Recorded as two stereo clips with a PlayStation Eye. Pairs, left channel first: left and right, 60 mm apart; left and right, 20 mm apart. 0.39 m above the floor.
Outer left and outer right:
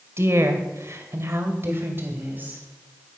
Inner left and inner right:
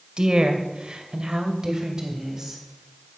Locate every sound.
0.2 s a woman speaking: 45° right (ahead or behind), 2 m; by 2.6 s 30° right (ahead or behind), 3 m